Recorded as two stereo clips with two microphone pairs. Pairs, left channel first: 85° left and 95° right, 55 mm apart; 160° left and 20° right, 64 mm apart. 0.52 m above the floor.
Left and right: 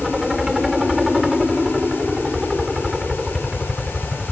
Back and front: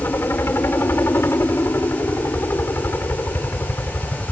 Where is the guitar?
No guitar in this recording.